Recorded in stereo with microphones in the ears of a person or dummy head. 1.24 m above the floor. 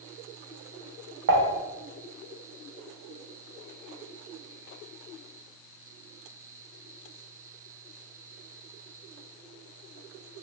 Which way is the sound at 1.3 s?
60° right (ahead or behind).